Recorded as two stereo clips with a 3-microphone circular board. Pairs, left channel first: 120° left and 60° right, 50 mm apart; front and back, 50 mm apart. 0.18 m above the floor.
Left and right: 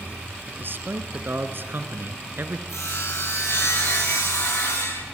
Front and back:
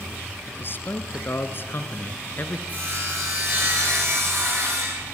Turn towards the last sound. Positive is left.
turn(degrees=130)